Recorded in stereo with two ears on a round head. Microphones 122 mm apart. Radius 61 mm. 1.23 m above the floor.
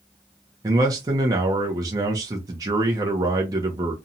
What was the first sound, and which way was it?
A man speaking, 25° right (ahead or behind).